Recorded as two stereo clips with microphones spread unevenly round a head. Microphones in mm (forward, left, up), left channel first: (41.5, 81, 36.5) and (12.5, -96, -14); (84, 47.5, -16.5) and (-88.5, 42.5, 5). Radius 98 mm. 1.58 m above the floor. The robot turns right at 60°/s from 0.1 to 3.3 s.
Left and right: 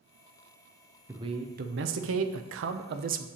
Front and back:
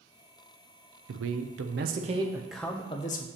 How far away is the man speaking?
About 0.6 m.